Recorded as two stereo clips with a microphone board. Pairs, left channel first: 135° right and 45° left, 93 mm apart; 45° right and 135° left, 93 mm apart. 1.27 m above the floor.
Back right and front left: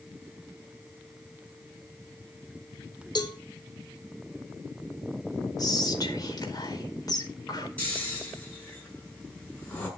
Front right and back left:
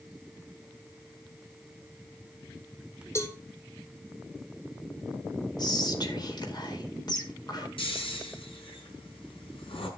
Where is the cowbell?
100° right, 1.8 m.